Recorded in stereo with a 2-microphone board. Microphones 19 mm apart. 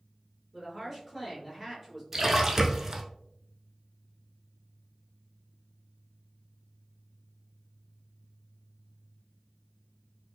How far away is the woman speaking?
About 1.4 m.